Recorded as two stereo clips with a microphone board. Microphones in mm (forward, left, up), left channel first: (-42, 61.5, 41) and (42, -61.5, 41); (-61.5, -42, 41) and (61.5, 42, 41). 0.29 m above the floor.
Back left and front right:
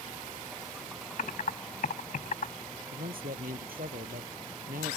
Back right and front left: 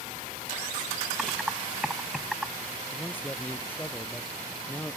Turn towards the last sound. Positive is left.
turn(degrees=-70)